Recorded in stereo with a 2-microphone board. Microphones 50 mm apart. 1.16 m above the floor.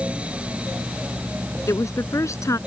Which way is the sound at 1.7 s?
90° left.